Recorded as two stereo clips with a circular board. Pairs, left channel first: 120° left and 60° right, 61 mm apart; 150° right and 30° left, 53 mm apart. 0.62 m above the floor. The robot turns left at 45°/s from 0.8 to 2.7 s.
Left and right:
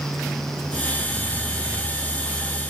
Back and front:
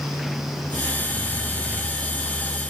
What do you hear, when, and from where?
Only background noise.